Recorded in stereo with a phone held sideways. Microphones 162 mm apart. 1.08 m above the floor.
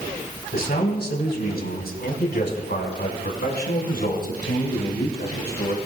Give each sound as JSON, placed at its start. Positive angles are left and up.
{"t": 0.5, "sound": "a man speaking", "side_deg": 70, "distance_m": 4.0}